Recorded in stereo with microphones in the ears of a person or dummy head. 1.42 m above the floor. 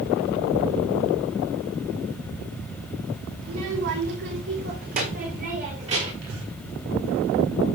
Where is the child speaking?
70° right (ahead or behind), 2.5 m; by 6.1 s 35° right (ahead or behind), 4.5 m.